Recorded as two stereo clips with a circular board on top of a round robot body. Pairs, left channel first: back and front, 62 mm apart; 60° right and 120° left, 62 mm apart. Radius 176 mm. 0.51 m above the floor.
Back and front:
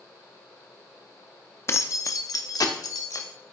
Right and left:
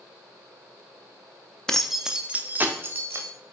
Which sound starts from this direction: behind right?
Keys jangling, at 1.7 s.